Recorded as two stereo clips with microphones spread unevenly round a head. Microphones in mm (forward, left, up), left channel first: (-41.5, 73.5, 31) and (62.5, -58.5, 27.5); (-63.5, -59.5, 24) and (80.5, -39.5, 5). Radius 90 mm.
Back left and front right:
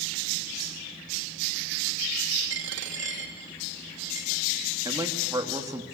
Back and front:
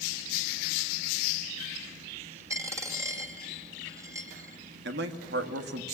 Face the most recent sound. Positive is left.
turn(degrees=20)